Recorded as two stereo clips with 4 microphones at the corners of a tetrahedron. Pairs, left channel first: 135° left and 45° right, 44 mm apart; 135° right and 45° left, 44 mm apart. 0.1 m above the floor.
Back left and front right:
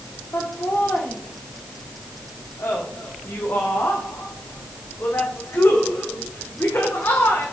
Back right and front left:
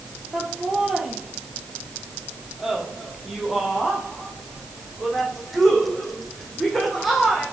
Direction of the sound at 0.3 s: 120° left.